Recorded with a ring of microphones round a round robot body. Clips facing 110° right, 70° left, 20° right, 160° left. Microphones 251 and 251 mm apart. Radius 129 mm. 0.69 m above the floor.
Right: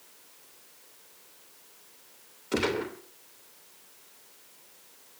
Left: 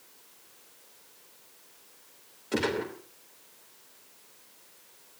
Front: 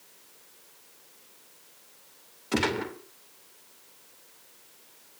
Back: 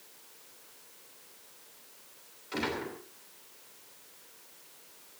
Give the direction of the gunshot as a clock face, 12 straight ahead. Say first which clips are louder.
Right 1 dB, front 7 dB; 1 o'clock.